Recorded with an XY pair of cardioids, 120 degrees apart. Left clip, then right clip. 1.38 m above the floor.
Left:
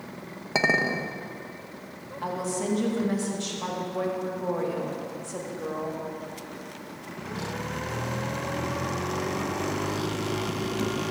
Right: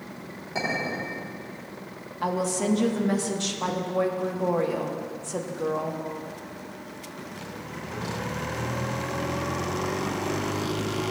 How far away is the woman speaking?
About 1.4 m.